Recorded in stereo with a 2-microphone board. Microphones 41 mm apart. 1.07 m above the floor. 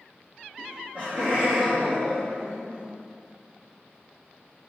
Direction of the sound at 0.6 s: 40° right (ahead or behind).